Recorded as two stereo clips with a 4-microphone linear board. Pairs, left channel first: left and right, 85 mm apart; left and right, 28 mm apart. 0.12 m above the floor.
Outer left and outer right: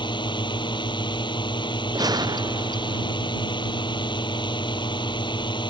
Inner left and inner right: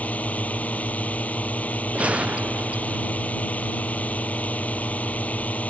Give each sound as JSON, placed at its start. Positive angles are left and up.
{"t": 0.0, "sound": "a drone", "side_deg": 65}
{"t": 1.9, "sound": "a gunshot", "side_deg": -50}